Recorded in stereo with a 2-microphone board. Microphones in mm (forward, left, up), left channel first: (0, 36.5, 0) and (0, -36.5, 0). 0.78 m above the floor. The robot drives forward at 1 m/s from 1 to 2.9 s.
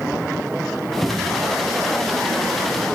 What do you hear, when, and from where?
1.0 s a cupboard door: 5° left (ahead or behind), 0.5 m; by 1.5 s centre (ahead or behind), 1.0 m